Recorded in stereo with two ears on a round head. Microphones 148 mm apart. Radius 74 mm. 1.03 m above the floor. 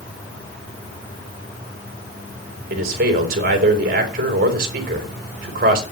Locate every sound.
2.7 s a man speaking: 60° right (ahead or behind), 4 m